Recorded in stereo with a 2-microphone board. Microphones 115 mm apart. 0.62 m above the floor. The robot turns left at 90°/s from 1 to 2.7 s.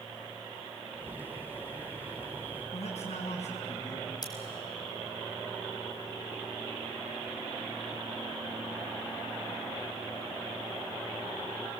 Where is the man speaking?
75° left (ahead or behind), 4 m.